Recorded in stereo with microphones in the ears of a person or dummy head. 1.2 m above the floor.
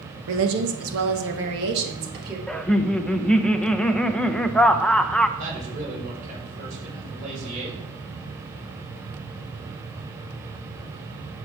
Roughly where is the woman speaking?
Right.